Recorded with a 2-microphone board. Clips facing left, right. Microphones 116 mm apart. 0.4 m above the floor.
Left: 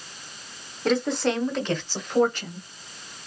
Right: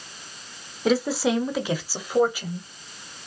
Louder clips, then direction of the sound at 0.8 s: Right 1 dB; 5° right (ahead or behind).